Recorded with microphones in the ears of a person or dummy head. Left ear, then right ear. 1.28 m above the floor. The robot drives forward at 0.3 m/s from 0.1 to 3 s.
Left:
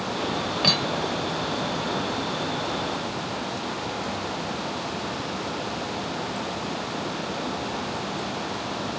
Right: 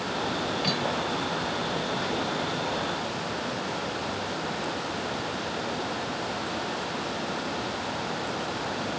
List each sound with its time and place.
0.6 s cutlery clinking: 20° left (ahead or behind); by 1.5 s 25° left (ahead or behind)